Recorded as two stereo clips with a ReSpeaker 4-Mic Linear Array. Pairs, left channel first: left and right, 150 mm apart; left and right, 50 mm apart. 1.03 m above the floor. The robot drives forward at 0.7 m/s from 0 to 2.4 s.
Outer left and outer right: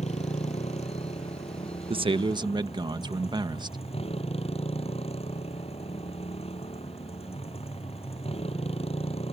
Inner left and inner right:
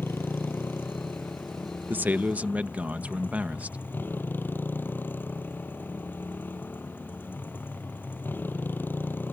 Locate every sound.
0.0 s a motorcycle: 50° left (ahead or behind); by 9.3 s 40° left (ahead or behind)
1.9 s a man speaking: 40° right (ahead or behind); by 3.8 s 30° right (ahead or behind)